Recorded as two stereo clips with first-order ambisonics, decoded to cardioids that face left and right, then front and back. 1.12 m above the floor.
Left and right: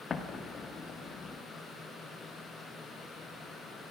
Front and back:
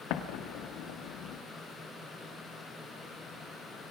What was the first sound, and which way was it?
An explosion, 20° left.